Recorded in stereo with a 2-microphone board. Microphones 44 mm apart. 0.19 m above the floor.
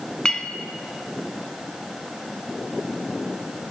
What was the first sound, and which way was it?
A clink, 20° left (ahead or behind).